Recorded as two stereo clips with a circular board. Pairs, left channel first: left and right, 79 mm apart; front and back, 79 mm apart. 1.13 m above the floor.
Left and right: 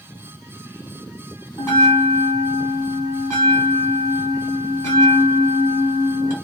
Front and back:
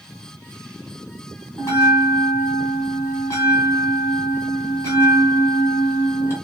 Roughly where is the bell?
Ahead left.